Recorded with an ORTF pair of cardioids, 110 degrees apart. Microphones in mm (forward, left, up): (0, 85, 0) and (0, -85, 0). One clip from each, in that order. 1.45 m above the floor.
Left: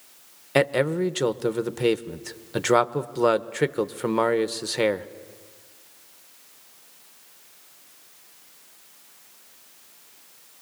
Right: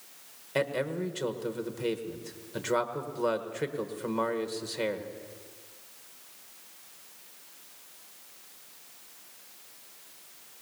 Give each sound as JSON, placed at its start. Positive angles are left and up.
{"t": 0.6, "sound": "a man speaking", "azimuth_deg": 50, "distance_m": 1.0}